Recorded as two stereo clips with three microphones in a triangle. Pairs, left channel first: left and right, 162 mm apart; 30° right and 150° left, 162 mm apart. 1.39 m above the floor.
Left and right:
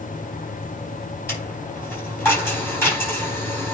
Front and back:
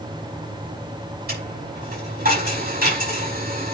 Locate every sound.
1.3 s a dropped coin: 165° left, 5 m